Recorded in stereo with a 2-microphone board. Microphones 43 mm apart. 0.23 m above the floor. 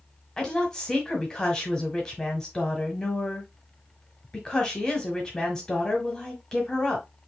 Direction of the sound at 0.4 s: 15° left (ahead or behind).